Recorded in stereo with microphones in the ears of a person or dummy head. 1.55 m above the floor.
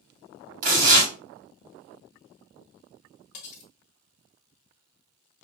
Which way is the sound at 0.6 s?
45° right (ahead or behind).